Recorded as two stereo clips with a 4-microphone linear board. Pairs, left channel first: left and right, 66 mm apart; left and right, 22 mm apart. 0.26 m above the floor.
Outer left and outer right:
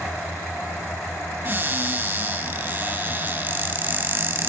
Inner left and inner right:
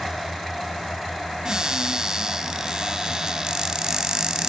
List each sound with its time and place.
1.4 s a cupboard door: 35° right (ahead or behind), 0.8 m